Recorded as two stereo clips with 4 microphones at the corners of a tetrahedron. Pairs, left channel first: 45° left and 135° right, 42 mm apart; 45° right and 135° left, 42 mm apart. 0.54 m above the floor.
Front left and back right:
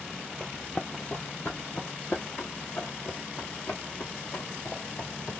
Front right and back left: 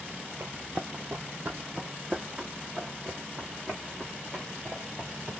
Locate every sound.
0.4 s running footsteps: 120° left, 0.9 m; by 5.3 s 55° left, 3.5 m